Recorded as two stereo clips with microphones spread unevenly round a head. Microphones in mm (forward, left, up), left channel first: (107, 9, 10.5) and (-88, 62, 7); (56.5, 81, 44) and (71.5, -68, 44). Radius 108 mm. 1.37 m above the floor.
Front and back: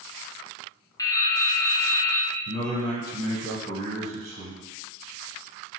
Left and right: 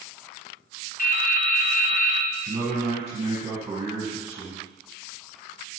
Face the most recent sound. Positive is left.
turn(degrees=-155)